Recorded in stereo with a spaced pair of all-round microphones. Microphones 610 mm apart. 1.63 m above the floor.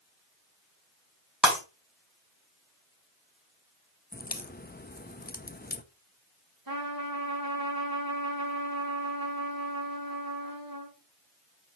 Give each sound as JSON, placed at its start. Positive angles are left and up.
{"t": 1.4, "sound": "breaking glass", "side_deg": 0, "distance_m": 4.5}
{"t": 4.1, "sound": "a crack", "side_deg": 15, "distance_m": 0.6}
{"t": 6.7, "sound": "a trumpet", "side_deg": -35, "distance_m": 2.5}